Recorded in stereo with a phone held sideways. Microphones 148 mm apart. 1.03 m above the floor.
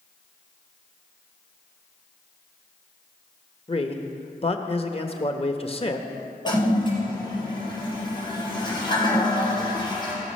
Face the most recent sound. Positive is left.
turn(degrees=30)  # may be behind; listen again after turning